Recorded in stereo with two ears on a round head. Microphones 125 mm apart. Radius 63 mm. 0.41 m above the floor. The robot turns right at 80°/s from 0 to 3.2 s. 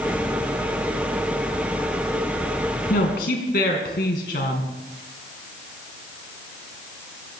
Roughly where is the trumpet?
No trumpet in this recording.